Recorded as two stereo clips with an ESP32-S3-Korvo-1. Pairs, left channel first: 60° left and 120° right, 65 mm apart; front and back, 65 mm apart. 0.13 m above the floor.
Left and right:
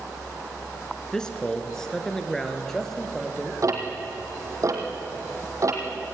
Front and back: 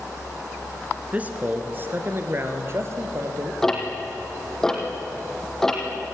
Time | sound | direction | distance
1.1 | a man speaking | 130° left | 2 m
3.6 | ticking | 85° right | 3.5 m